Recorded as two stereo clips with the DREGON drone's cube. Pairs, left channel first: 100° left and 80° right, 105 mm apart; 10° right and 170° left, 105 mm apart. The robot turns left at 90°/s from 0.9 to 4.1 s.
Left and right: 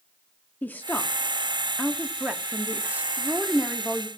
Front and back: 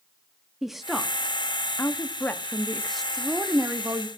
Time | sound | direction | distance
0.6 | a woman speaking | 85° left | 0.6 m